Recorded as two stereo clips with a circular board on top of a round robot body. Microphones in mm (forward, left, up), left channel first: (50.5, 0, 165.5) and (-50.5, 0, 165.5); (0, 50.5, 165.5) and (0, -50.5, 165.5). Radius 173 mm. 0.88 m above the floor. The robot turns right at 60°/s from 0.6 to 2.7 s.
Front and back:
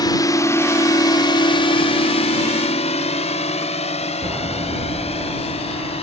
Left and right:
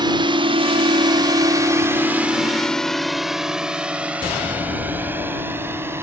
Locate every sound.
0.0 s a drone: 50° right; by 6.0 s 25° right